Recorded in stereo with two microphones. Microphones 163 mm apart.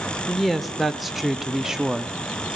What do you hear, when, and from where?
0.3 s a woman speaking: centre (ahead or behind), 2 m; by 2.6 s 5° right (ahead or behind), 0.8 m